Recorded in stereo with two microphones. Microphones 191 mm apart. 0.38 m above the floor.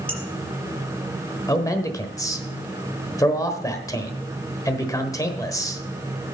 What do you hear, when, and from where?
0.1 s dishes clattering: 5° left (ahead or behind), 5 m
1.5 s a man speaking: 20° left (ahead or behind), 1.1 m